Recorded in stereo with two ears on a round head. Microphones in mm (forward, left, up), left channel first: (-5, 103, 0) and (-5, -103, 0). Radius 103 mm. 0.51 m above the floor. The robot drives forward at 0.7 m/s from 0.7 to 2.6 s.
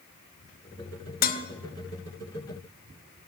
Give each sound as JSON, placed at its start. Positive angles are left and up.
{"t": 1.2, "sound": "dishes clattering", "side_deg": 40, "distance_m": 0.9}